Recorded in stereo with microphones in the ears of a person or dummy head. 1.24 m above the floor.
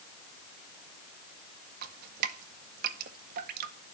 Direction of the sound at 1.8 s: 55° right (ahead or behind).